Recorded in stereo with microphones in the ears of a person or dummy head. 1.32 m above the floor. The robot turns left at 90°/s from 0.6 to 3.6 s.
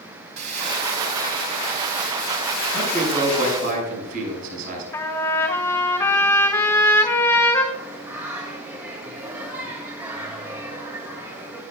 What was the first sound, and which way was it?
Crumpling, 40° right.